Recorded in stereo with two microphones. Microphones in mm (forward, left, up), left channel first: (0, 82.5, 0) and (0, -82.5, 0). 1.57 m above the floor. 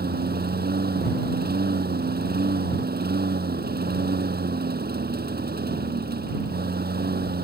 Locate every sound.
0.0 s a lawn mower: 75° right (ahead or behind)